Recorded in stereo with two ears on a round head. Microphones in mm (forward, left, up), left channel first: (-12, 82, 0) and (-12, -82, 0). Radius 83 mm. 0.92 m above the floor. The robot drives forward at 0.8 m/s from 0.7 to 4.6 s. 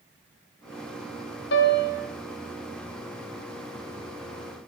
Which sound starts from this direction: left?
A piano, at 1.5 s.